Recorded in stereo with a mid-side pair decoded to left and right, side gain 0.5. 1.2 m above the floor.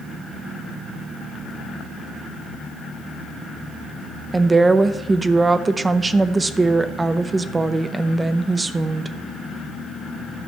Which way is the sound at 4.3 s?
25° right.